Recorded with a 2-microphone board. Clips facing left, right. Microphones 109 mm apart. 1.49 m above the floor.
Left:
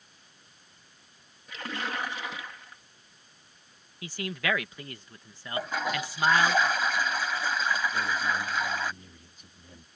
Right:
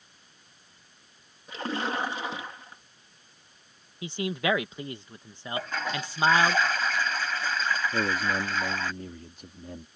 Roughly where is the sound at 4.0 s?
Right.